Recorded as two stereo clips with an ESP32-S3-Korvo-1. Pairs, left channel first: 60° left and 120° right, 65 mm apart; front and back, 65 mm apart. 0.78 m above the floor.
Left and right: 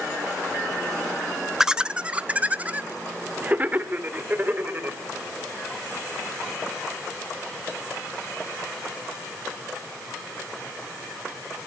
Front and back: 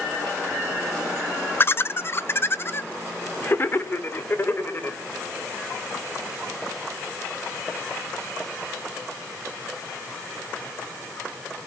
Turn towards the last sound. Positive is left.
turn(degrees=-55)